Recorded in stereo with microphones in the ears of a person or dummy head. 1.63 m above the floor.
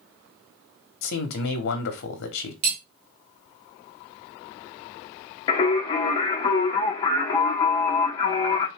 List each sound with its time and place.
1.0 s a man speaking: 65° left (ahead or behind), 1.2 m
2.6 s cutlery clinking: 55° right (ahead or behind), 1.8 m
5.5 s singing: 20° left (ahead or behind), 1.3 m